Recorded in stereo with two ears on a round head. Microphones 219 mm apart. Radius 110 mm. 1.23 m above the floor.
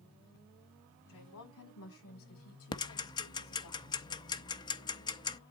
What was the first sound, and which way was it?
A woman speaking, 65° left (ahead or behind).